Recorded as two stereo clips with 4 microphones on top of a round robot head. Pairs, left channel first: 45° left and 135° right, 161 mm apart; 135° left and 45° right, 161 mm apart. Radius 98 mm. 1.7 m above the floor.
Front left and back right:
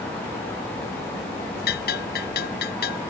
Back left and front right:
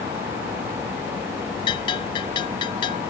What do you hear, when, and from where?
1.7 s a bell: 70° left